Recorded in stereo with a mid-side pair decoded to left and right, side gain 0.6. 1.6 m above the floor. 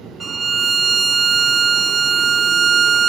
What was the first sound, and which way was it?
A violin, 25° right.